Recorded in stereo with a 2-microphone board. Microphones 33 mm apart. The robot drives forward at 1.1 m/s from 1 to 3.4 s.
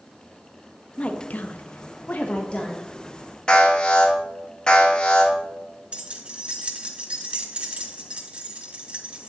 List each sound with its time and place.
1.0 s a woman speaking: 40° left (ahead or behind), 1.1 m; by 2.9 s 30° left (ahead or behind), 1.4 m
3.5 s an alarm: 30° left (ahead or behind), 3 m
5.9 s keys jangling: 40° right (ahead or behind), 1.3 m